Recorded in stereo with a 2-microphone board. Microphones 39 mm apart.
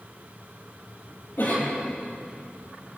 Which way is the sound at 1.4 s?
55° left (ahead or behind).